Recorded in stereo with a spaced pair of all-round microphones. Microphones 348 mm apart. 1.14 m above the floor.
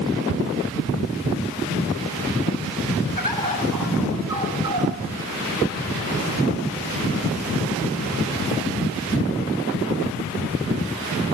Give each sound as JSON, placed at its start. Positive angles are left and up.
{"t": 3.2, "sound": "a bird", "side_deg": -70, "distance_m": 5.5}